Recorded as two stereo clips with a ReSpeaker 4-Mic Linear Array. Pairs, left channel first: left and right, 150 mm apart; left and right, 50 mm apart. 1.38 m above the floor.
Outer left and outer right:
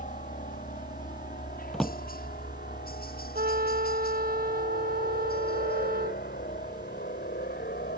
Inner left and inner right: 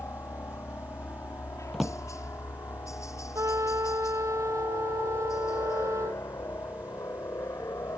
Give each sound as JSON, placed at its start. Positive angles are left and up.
{"t": 0.0, "sound": "a helicopter", "side_deg": 55}
{"t": 1.7, "sound": "a drawer", "side_deg": 0}
{"t": 3.4, "sound": "a trumpet", "side_deg": -70}